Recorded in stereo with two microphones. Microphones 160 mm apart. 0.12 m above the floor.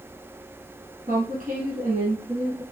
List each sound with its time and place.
1.1 s a woman speaking: 65° right (ahead or behind), 2.5 m